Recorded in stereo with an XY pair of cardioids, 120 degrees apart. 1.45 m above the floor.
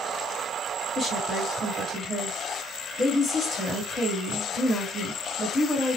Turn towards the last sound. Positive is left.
turn(degrees=-5)